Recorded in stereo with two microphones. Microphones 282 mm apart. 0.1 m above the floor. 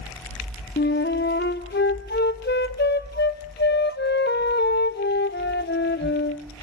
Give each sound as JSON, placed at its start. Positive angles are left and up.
{"t": 0.8, "sound": "a flute", "side_deg": 40, "distance_m": 0.6}